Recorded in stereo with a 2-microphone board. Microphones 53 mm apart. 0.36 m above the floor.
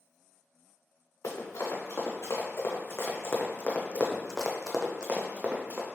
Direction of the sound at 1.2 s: 75° left (ahead or behind).